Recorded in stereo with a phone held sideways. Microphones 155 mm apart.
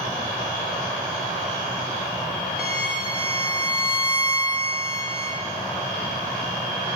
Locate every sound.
2.6 s a violin: 70° left (ahead or behind), 1.2 m